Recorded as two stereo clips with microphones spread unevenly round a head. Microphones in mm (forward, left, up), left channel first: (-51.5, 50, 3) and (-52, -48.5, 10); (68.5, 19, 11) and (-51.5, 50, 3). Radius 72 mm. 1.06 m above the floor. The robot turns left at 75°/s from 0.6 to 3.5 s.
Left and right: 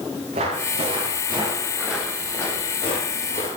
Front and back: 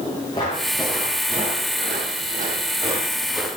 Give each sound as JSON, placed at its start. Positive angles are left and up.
{"t": 0.3, "sound": "footsteps", "azimuth_deg": -75, "distance_m": 7.5}